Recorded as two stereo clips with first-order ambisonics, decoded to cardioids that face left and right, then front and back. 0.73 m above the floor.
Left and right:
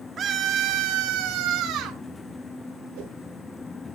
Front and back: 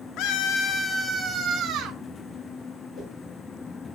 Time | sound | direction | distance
0.2 | a scream | 30° right | 1.5 m
3.0 | a whoosh | 80° right | 6 m